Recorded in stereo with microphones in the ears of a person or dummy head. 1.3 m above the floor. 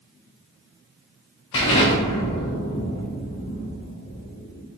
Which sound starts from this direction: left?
An explosion, at 1.5 s.